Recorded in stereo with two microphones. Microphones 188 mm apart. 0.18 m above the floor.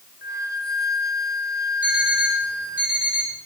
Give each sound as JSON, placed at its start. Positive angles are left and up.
{"t": 0.2, "sound": "a flute", "side_deg": 60, "distance_m": 1.8}
{"t": 1.8, "sound": "an alarm clock", "side_deg": -5, "distance_m": 10.0}